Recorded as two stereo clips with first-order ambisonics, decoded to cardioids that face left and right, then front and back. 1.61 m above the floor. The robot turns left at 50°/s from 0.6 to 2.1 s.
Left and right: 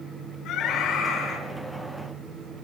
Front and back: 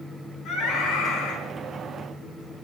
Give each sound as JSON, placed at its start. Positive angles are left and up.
{"t": 0.5, "sound": "a scream", "azimuth_deg": 45, "distance_m": 7.0}